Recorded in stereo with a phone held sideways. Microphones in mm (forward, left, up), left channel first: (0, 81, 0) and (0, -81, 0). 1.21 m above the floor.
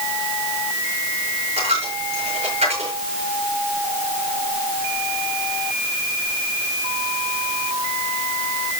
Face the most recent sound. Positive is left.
turn(degrees=-40)  # may be behind; listen again after turning